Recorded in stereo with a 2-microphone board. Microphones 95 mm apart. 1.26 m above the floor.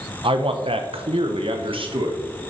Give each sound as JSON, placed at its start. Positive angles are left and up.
{"t": 0.2, "sound": "a man speaking", "side_deg": -65, "distance_m": 0.9}